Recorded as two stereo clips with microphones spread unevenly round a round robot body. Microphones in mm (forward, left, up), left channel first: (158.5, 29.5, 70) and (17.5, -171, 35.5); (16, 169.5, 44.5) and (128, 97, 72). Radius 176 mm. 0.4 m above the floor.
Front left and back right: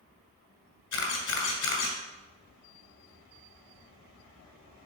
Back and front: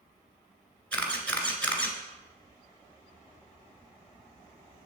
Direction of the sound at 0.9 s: 65° left.